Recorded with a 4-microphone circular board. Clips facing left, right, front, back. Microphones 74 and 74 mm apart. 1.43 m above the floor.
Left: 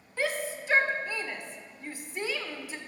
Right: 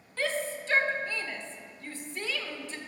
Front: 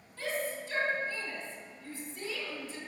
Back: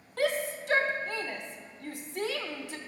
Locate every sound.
0.2 s a shout: 170° left, 1.0 m